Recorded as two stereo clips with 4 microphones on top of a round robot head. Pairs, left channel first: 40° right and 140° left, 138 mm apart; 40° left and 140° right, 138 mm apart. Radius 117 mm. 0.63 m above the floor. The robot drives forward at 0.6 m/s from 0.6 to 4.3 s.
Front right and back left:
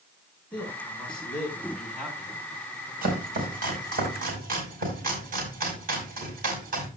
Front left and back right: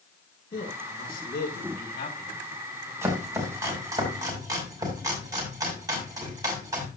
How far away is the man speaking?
About 6 m.